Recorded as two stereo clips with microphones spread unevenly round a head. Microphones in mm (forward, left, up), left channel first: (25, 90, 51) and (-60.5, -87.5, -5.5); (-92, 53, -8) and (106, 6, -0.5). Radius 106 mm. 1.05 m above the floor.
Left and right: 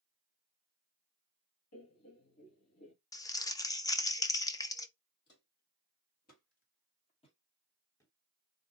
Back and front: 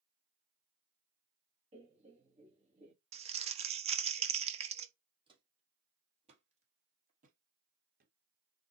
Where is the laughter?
50° left, 2.5 m.